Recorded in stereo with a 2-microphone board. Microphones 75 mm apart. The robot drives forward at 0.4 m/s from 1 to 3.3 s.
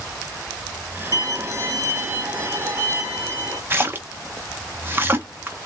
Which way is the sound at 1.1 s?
50° right (ahead or behind).